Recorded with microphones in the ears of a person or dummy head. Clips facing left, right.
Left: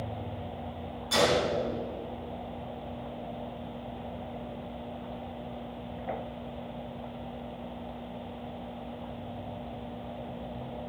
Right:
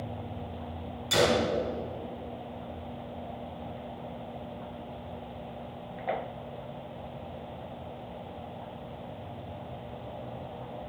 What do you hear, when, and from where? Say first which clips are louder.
1.1 s a gunshot: right 1 dB; 35° right (ahead or behind), 1.7 m